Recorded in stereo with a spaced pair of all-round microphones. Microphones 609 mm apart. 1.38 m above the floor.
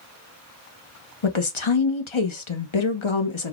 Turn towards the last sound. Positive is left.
turn(degrees=50)  # may be behind; listen again after turning